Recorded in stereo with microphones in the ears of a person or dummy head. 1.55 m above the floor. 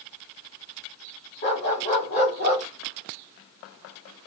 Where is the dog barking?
30° left (ahead or behind), 1.4 m.